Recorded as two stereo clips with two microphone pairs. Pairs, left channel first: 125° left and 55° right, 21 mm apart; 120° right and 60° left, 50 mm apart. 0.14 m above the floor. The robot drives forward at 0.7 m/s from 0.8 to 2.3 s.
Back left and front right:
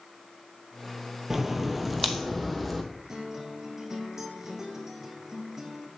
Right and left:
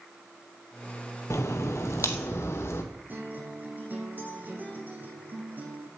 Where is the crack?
130° right, 1.2 m; by 2.8 s 145° right, 1.7 m.